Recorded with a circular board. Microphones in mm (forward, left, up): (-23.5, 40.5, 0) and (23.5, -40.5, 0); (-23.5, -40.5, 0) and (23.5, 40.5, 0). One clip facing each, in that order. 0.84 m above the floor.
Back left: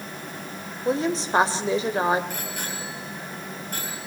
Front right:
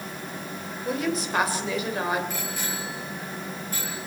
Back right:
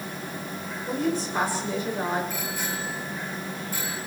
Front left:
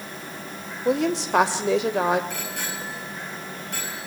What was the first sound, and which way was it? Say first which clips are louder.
A woman speaking: back left 4 dB, front left 5 dB; 60° left.